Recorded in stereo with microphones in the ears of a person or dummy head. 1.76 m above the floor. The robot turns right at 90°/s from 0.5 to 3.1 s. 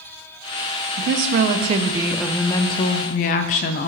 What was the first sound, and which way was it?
A woman speaking, 110° right.